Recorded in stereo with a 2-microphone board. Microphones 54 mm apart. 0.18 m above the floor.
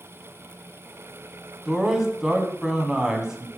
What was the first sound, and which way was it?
A man speaking, 10° right (ahead or behind).